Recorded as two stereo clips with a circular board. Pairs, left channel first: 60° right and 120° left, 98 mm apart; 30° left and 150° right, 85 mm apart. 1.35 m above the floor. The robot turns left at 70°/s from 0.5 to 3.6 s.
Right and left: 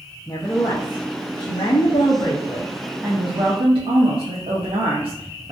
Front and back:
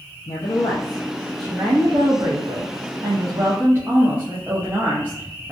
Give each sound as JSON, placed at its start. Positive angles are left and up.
{"t": 0.3, "sound": "a woman speaking", "azimuth_deg": 0, "distance_m": 0.6}